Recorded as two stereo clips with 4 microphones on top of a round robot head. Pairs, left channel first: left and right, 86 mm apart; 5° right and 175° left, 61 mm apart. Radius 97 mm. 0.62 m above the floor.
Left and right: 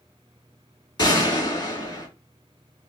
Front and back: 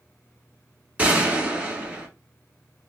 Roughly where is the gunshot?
Behind left.